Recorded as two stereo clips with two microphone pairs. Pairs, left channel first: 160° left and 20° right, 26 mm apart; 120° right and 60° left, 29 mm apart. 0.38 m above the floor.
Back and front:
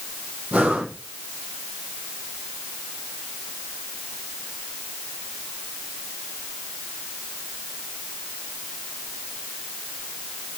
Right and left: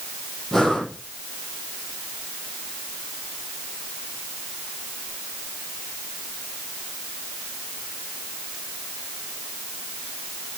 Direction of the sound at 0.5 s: 45° right.